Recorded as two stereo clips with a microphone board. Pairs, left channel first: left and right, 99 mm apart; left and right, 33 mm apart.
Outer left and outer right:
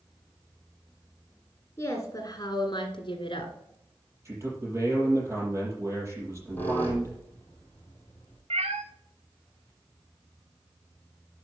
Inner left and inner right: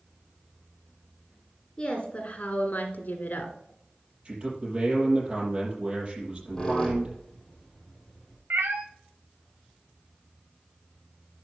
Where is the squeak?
20° left (ahead or behind), 2.5 m.